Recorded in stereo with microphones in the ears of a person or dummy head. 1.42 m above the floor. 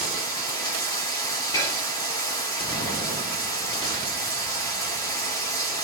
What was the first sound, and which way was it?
Running water, 20° left (ahead or behind).